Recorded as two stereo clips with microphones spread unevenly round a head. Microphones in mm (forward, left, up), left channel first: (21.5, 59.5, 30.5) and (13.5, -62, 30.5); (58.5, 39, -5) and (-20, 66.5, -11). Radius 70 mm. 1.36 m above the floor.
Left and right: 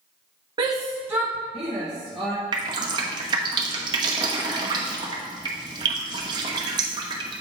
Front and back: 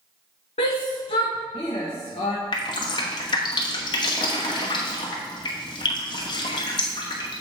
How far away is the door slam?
I don't hear a door slam.